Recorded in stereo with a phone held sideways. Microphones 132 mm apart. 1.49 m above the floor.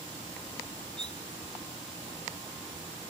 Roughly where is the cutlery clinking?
Left.